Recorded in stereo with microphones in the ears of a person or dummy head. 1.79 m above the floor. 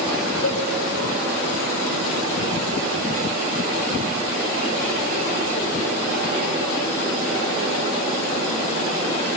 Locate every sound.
0.4 s a cowbell: 70° left (ahead or behind), 9 m